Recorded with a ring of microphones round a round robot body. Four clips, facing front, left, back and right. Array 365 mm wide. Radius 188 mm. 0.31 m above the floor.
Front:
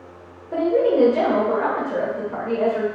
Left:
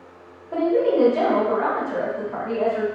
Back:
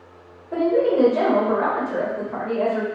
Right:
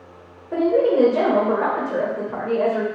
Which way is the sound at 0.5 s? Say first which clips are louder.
Right 2 dB, front 1 dB; 95° right.